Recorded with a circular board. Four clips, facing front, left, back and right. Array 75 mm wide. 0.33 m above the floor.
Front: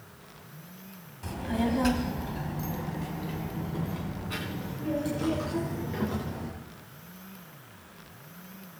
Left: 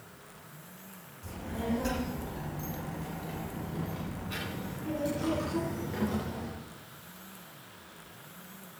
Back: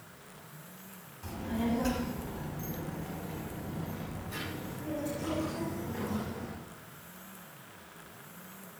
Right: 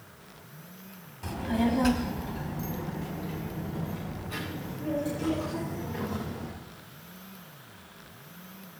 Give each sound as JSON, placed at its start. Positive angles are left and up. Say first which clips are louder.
{"t": 1.2, "sound": "a child speaking", "louder": "right 8 dB, front 4 dB", "azimuth_deg": -60, "distance_m": 1.7}